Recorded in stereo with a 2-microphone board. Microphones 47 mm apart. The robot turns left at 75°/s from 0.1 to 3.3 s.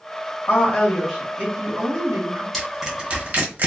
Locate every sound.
0.5 s a woman speaking: 45° left, 1.1 m; by 2.4 s 105° right, 1.1 m
2.5 s crushing: 5° left (ahead or behind), 1.0 m; by 3.7 s 40° right (ahead or behind), 1.0 m